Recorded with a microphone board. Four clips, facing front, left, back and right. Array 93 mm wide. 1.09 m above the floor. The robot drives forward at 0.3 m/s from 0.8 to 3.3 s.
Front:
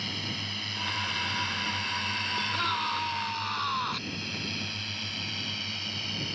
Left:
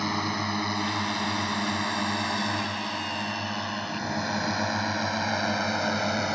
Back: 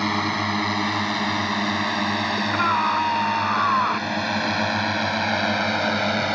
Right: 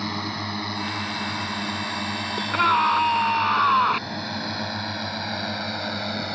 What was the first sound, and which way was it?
A drone, 170° left.